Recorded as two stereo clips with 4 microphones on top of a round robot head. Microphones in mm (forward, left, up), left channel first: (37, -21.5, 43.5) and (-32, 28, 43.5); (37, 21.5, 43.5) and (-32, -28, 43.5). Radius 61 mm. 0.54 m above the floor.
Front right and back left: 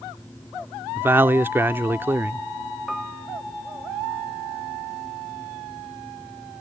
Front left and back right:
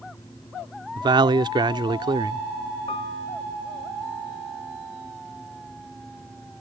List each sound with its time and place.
1.0 s a man speaking: 155° right
2.9 s a piano: 55° left